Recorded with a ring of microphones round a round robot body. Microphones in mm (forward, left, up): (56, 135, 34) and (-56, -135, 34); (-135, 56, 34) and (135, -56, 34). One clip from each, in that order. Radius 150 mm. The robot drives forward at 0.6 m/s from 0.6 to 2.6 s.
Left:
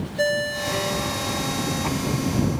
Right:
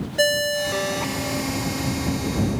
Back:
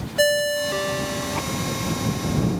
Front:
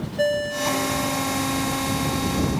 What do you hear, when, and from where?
0.2 s a ringtone: 170° right, 0.6 m; by 1.4 s 175° right, 1.1 m